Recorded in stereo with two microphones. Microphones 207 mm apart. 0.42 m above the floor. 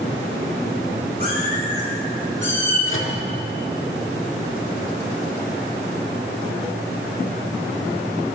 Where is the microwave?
80° left, 4 m.